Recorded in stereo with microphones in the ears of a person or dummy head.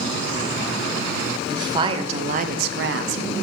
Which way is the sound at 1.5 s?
20° right (ahead or behind).